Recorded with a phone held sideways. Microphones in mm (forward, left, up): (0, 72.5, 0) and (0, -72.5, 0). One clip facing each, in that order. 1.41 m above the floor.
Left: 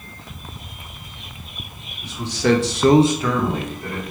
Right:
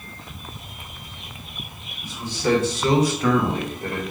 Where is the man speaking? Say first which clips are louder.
Left 4 dB; 70° left (ahead or behind), 1.3 m; by 4.0 s 30° right (ahead or behind), 1.5 m.